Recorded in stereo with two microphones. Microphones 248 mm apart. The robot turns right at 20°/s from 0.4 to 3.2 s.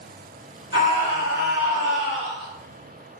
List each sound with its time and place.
0.7 s a scream: 35° right, 1.5 m; by 2.5 s straight ahead, 1.5 m